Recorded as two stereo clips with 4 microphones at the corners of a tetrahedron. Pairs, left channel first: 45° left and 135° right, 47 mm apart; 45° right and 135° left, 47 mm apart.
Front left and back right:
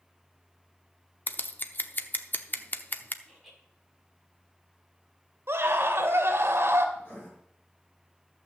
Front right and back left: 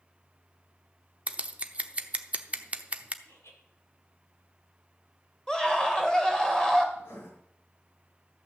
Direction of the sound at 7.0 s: 10° right.